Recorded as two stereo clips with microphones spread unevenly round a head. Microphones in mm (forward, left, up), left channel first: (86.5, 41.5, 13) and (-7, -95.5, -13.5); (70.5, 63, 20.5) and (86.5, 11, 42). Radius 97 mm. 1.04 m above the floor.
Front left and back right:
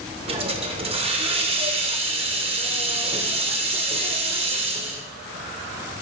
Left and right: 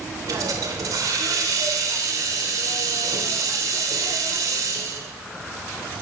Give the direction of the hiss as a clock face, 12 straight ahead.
3 o'clock.